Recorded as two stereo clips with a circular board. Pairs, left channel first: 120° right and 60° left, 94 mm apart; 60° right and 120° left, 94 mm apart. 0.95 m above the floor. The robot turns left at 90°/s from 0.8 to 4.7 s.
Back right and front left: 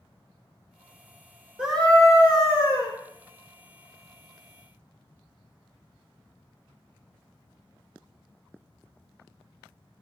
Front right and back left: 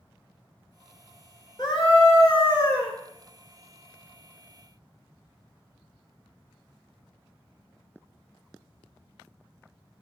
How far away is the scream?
About 3.5 m.